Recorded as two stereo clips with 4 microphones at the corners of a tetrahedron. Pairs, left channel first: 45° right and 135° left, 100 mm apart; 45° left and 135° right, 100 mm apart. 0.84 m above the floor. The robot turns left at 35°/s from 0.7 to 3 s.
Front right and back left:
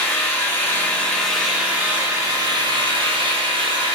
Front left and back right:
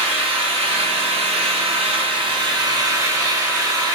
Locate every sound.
0.0 s an engine running: 115° right, 0.7 m; by 4.0 s 165° left, 0.7 m